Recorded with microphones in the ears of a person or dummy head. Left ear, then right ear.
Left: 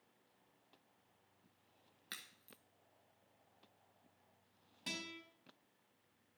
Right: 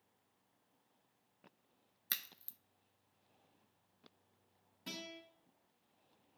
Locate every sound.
2.1 s a crack: 30° right (ahead or behind), 0.7 m
4.9 s a guitar: 25° left (ahead or behind), 4 m